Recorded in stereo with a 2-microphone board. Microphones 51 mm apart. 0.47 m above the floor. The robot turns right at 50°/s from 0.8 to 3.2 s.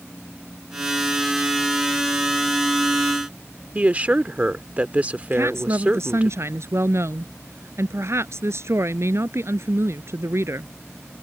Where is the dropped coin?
No dropped coin in this recording.